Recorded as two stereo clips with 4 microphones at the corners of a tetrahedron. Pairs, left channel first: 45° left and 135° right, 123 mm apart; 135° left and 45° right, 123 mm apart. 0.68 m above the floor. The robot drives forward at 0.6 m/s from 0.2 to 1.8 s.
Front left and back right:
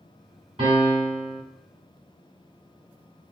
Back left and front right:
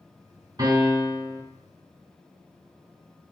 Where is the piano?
105° right, 1.7 m; by 1.4 s 120° right, 1.9 m.